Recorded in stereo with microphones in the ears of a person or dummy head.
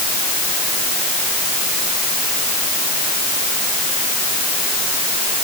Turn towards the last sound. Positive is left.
No sound to turn to.